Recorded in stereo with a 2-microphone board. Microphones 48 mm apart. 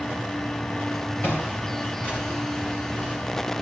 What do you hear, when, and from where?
1.2 s footsteps: 40° left (ahead or behind), 4.5 m